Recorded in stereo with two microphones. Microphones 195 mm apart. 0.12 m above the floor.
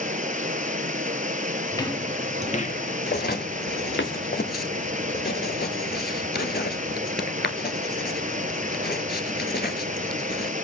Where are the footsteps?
15° left (ahead or behind), 1.9 m; by 4.1 s 70° left (ahead or behind), 2 m.